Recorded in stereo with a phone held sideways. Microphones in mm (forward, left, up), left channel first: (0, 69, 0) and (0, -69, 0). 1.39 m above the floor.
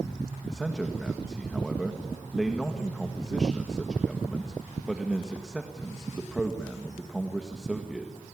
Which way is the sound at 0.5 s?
Centre (ahead or behind).